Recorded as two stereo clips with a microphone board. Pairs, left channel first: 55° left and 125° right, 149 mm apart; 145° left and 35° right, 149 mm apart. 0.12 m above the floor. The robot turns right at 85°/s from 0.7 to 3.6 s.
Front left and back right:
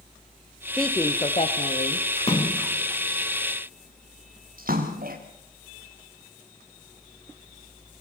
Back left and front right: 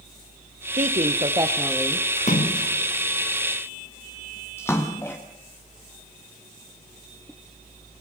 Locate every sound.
0.8 s a woman speaking: 35° right, 2.5 m; by 2.1 s 75° left, 2.5 m
2.2 s a splash: 95° left, 5 m; by 5.2 s 140° right, 5 m